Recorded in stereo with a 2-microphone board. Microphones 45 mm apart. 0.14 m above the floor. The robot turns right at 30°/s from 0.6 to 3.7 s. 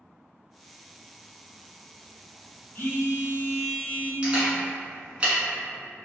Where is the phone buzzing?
45° left (ahead or behind), 0.6 m; by 4.1 s 40° left (ahead or behind), 0.6 m.